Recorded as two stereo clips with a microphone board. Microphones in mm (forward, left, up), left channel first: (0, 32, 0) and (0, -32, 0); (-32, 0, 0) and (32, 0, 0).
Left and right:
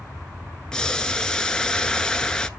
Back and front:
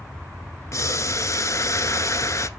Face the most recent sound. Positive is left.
turn(degrees=170)